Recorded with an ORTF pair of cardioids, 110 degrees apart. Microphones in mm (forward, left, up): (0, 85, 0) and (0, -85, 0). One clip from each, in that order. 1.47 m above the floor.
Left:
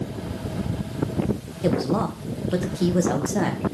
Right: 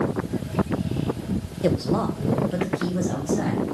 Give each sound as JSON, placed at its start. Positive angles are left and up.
{"t": 1.6, "sound": "a woman speaking", "azimuth_deg": -15, "distance_m": 1.3}